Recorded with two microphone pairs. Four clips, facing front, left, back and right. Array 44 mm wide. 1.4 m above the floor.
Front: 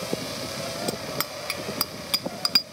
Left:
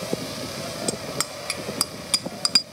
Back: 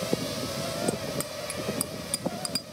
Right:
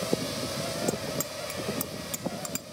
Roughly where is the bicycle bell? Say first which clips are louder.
Left 2 dB, front 1 dB; ahead left.